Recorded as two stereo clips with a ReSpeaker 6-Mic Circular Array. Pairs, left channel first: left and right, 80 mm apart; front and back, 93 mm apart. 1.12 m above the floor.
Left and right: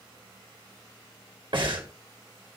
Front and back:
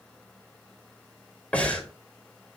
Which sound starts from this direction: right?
Breathing, at 1.5 s.